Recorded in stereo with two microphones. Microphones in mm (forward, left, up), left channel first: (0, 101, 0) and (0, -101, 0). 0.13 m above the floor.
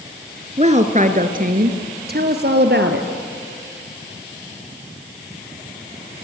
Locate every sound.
0.6 s a woman speaking: 35° right (ahead or behind), 1.8 m; by 3.1 s 60° right (ahead or behind), 2.5 m